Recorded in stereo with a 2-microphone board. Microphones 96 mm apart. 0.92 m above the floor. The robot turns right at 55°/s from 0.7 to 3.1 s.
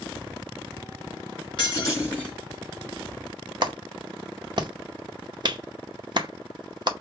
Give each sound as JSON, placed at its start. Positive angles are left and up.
{"t": 1.6, "sound": "breaking glass", "azimuth_deg": 130, "distance_m": 3.5}
{"t": 3.6, "sound": "a clap", "side_deg": -50, "distance_m": 0.7}